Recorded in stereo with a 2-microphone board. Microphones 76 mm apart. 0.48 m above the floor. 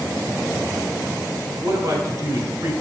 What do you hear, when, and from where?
1.6 s a man speaking: 55° right (ahead or behind), 1.4 m; by 2.7 s 40° right (ahead or behind), 1.0 m